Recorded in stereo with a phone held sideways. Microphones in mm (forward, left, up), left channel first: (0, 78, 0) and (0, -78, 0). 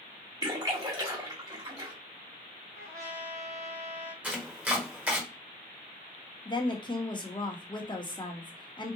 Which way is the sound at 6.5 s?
25° left (ahead or behind).